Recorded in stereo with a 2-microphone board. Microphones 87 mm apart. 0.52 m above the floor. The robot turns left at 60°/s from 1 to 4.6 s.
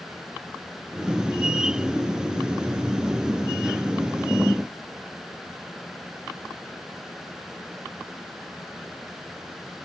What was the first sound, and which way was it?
Only background noise.